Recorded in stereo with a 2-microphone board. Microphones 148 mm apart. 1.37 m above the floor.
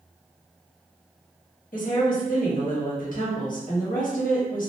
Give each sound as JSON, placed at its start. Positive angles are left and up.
{"t": 1.7, "sound": "a woman speaking", "side_deg": 65, "distance_m": 1.0}